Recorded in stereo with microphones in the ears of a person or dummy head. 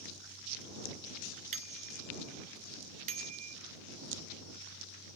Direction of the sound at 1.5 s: 45° right (ahead or behind).